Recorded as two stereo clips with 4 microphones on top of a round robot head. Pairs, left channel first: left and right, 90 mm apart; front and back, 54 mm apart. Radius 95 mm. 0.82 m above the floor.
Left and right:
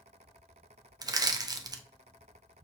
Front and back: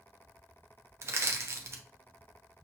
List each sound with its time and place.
1.0 s crushing: 140° right, 0.6 m